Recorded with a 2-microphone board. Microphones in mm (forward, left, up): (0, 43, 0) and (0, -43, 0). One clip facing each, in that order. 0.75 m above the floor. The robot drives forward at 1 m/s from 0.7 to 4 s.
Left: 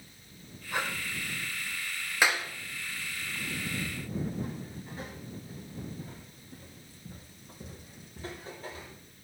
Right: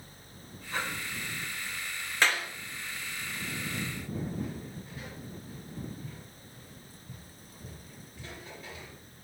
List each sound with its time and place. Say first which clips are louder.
0.7 s breathing: left 2 dB; 15° left (ahead or behind), 2.5 m
2.2 s a clap: left 1 dB; 10° left (ahead or behind), 2.0 m
3.8 s footsteps: left 1 dB; 30° left (ahead or behind), 5.5 m; by 8.9 s 35° left (ahead or behind), 8.5 m